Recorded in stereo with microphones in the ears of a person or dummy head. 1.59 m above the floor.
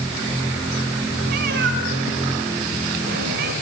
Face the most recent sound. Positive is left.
turn(degrees=-55)  # may be behind; listen again after turning